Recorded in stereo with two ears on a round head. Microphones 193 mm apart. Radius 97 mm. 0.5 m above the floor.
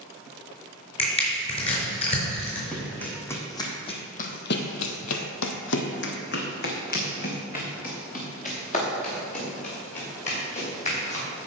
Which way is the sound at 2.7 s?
5° left (ahead or behind).